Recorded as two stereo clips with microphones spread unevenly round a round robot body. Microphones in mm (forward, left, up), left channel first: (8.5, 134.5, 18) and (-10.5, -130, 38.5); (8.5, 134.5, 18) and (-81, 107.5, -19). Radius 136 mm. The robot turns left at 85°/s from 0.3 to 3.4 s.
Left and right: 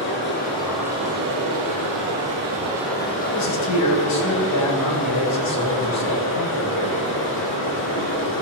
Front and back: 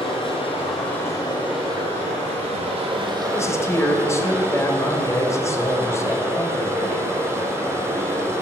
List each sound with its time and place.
0.0 s running water: 35° left, 4 m; by 8.4 s 130° left, 4 m
3.3 s a man speaking: 90° left, 3 m; by 7.0 s 85° left, 3 m